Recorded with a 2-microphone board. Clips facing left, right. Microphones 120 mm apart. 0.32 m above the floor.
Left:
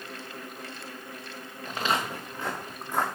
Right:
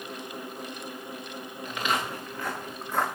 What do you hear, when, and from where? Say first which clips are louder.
1.6 s footsteps: left 1 dB; 35° left (ahead or behind), 2.5 m; by 3.1 s 10° left (ahead or behind), 2.0 m